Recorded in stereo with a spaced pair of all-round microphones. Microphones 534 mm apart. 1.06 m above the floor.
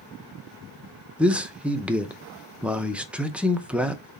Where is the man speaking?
Centre (ahead or behind), 0.6 m.